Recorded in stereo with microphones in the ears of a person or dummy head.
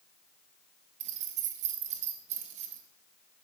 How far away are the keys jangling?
About 0.9 m.